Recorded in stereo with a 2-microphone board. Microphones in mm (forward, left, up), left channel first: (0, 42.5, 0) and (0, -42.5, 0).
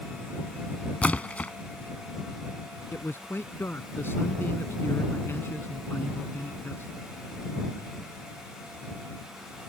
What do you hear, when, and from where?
1.0 s a splash: 15° left (ahead or behind)
2.9 s a man speaking: 25° left (ahead or behind)